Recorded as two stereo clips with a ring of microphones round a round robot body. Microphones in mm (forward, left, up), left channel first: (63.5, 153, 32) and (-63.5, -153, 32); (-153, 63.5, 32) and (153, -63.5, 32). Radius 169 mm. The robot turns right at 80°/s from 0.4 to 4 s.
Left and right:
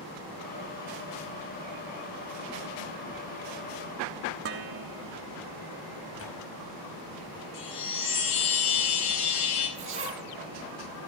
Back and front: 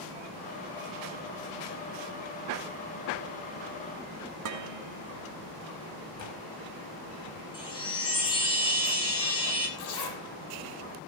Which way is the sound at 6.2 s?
120° left.